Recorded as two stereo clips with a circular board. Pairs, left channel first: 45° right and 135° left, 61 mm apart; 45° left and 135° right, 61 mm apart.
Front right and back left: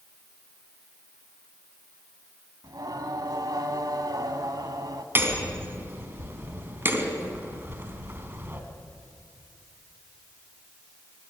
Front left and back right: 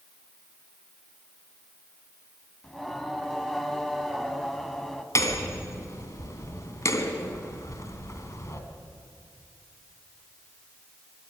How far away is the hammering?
About 2 m.